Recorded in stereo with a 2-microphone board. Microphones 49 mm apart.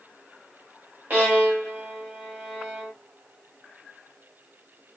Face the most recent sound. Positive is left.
turn(degrees=-40)  # may be behind; listen again after turning